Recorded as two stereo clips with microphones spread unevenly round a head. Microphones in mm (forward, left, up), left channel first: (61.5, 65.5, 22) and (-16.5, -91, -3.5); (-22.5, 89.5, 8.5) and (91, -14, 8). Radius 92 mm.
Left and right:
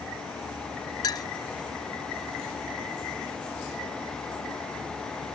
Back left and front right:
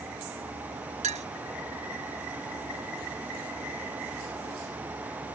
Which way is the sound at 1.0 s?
Straight ahead.